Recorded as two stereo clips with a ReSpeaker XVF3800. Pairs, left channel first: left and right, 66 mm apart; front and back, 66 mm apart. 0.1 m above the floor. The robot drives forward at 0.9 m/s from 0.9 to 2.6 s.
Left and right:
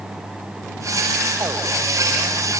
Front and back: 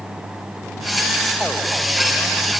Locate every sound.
Only background noise.